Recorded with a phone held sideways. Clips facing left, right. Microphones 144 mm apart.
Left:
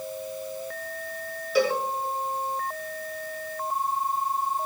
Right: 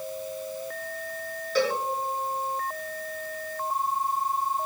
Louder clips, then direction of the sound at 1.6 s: Left 2 dB; 10° left (ahead or behind).